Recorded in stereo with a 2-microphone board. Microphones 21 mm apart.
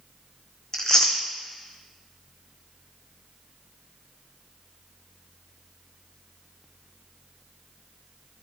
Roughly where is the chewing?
Left.